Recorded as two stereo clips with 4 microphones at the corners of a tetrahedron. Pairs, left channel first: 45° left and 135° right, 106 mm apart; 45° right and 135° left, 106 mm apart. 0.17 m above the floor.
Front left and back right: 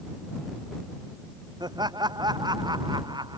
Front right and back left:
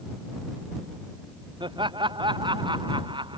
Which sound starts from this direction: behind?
Laughter, at 1.6 s.